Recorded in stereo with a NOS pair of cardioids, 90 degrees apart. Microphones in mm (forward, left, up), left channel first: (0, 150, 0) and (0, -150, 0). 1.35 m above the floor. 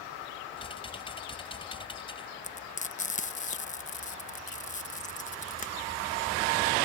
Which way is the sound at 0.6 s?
20° left.